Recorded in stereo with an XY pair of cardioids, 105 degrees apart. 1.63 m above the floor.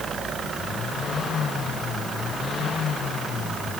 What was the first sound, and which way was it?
Only background noise.